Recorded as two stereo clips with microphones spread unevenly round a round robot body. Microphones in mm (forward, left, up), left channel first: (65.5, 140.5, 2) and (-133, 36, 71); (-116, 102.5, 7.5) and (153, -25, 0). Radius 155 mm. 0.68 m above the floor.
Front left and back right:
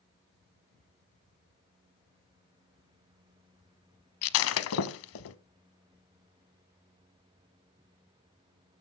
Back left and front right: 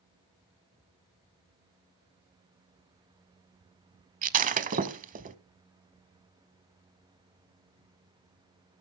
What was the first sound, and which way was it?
Breaking glass, 25° left.